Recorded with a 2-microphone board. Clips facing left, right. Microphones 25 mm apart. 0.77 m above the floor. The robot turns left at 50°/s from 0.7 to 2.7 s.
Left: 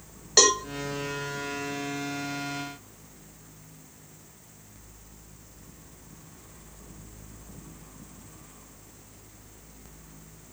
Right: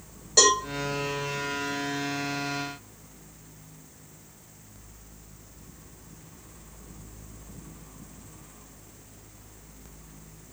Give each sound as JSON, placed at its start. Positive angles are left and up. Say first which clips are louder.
{"t": 0.4, "sound": "a cowbell", "louder": "even", "side_deg": 30, "distance_m": 1.2}